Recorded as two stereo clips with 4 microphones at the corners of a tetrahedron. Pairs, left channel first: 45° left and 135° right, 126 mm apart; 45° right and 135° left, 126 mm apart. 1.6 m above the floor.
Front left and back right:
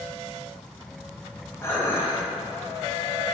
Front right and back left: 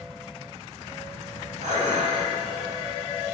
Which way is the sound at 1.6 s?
115° left.